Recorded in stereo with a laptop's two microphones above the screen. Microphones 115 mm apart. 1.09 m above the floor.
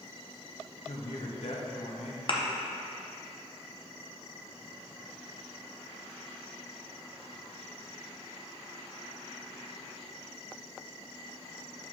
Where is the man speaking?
65° left (ahead or behind), 1.0 m.